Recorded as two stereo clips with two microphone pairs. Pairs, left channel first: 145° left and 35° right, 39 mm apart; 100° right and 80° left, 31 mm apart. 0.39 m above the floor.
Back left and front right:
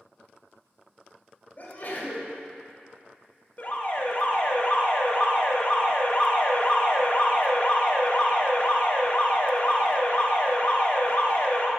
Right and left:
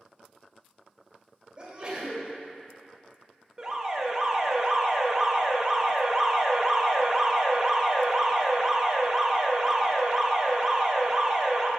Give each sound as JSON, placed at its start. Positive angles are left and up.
{"t": 1.6, "sound": "a sneeze", "azimuth_deg": 130, "distance_m": 1.8}
{"t": 3.6, "sound": "an alarm", "azimuth_deg": 150, "distance_m": 0.9}